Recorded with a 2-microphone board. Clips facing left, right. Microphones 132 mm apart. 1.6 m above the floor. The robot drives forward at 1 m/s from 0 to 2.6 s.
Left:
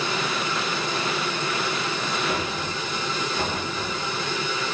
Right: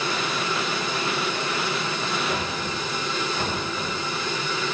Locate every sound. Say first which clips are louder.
2.3 s knocking: even; 20° left (ahead or behind), 3.5 m